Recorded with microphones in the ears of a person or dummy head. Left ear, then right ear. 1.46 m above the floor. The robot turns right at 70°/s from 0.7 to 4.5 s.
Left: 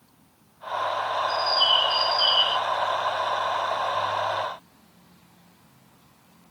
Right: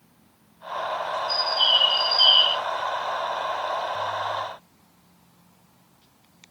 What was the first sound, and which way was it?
A bird, 120° right.